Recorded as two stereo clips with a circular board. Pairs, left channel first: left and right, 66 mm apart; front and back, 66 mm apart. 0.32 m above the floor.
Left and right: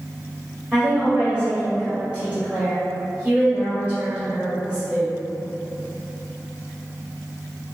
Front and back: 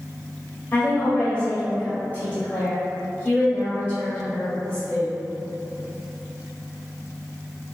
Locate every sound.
0.7 s a woman speaking: 35° right, 1.4 m